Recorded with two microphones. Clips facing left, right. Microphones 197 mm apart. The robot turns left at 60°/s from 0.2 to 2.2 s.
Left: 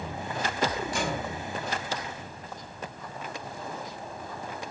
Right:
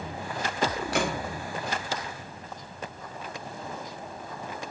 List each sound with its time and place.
0.9 s a gunshot: 70° right (ahead or behind), 0.6 m; by 1.2 s 60° right (ahead or behind), 0.6 m